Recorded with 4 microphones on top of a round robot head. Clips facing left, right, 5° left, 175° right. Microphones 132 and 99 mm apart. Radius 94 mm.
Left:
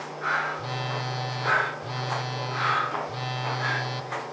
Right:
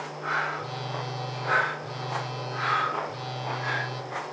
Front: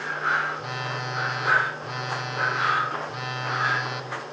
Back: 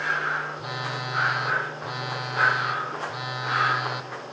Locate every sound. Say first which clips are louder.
0.6 s a phone buzzing: left 2 dB, front 1 dB; 105° left, 0.6 m